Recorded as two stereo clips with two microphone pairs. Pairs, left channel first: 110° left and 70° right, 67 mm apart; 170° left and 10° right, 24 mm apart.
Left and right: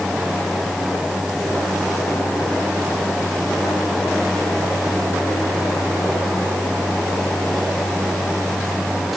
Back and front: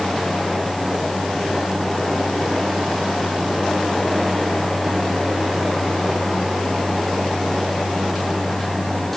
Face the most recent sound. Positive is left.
No sound to turn to.